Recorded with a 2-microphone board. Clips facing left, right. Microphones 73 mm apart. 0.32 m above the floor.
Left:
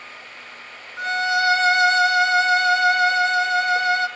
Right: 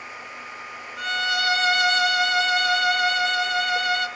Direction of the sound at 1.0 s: 25° left (ahead or behind).